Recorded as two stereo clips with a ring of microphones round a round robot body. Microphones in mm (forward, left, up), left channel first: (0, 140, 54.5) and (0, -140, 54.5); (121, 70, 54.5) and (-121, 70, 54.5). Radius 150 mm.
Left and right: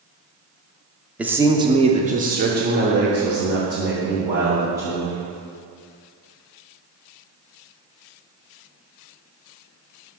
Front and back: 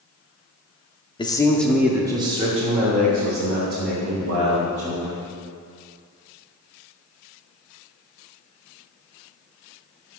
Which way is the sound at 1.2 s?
15° right.